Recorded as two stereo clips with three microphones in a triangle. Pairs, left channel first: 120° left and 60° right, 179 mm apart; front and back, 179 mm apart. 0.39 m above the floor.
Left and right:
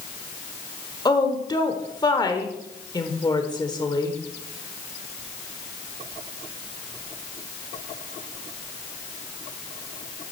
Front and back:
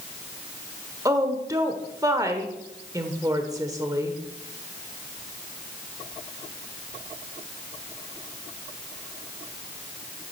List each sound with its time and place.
1.1 s a woman speaking: 140° left, 1.0 m